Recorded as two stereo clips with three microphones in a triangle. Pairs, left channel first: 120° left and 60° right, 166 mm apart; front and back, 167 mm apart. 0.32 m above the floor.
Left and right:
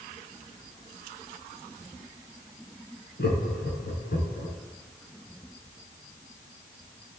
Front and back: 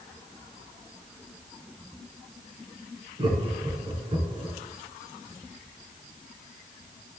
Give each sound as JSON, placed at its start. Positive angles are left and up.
{"t": 3.2, "sound": "laughter", "azimuth_deg": 125, "distance_m": 3.0}